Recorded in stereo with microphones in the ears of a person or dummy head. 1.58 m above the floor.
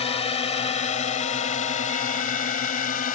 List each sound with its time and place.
0.0 s a drone: 30° left (ahead or behind); by 3.2 s 45° left (ahead or behind)